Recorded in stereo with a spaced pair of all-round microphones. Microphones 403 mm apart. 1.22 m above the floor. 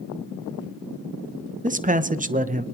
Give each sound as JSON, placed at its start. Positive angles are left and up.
{"t": 1.6, "sound": "a man speaking", "side_deg": -20, "distance_m": 0.6}